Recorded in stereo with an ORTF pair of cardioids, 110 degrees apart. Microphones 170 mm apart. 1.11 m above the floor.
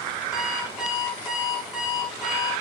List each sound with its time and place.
0.3 s an alarm clock: 5° right, 4.5 m